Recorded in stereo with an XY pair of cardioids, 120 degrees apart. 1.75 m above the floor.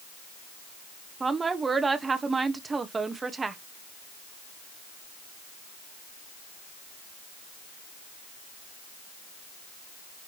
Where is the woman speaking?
25° right, 1.5 m.